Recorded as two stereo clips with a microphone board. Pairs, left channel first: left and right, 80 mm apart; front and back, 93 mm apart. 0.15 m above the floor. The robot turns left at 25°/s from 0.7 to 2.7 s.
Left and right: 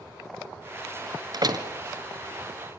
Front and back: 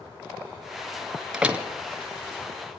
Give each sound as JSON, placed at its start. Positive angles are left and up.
{"t": 1.3, "sound": "a door slam", "azimuth_deg": -100, "distance_m": 1.9}